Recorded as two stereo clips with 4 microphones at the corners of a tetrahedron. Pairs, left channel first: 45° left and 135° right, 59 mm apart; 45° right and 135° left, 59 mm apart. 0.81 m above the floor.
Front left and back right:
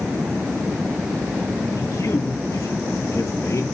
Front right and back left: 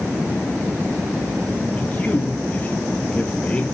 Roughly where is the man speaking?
Ahead.